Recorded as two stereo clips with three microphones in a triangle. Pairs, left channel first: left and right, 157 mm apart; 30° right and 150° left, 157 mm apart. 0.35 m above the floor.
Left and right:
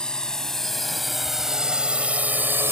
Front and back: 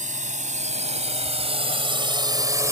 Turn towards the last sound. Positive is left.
turn(degrees=-155)